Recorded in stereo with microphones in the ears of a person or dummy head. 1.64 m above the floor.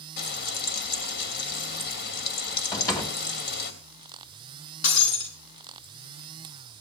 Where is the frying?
60° left (ahead or behind), 3 m.